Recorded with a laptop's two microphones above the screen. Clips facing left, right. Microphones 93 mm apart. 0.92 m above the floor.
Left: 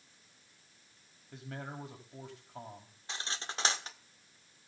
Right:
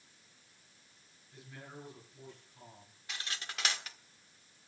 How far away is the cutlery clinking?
About 1.5 m.